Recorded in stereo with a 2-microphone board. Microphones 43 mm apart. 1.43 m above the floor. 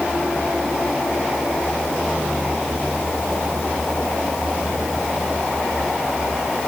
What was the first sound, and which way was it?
Only background noise.